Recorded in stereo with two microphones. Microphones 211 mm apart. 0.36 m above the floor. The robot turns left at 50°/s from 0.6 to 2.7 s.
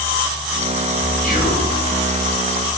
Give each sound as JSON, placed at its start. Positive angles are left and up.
{"t": 1.2, "sound": "whispering", "side_deg": 40, "distance_m": 1.9}